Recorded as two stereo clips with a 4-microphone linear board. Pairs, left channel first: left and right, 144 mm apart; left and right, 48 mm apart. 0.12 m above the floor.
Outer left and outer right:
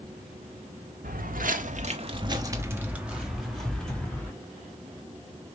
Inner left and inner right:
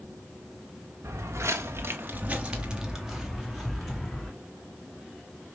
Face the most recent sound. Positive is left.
turn(degrees=10)  # may be behind; listen again after turning